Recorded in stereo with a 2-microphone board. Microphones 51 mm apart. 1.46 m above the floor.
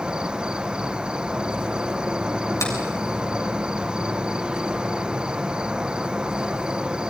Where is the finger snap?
75° left (ahead or behind), 7 m.